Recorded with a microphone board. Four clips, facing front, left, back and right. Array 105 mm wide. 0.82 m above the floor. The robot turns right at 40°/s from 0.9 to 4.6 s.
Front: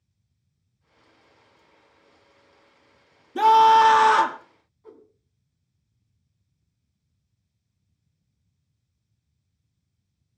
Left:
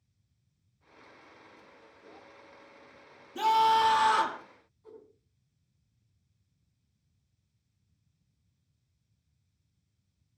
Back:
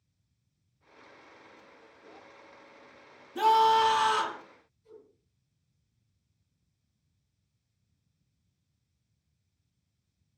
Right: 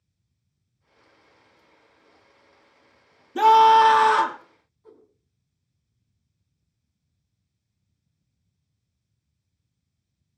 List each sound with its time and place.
3.4 s a scream: 55° right, 1.9 m; by 4.4 s 10° right, 1.9 m
4.8 s a whoosh: straight ahead, 4 m